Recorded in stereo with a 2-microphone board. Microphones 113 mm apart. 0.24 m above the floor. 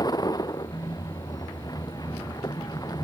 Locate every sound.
0.0 s a vehicle: 35° left (ahead or behind)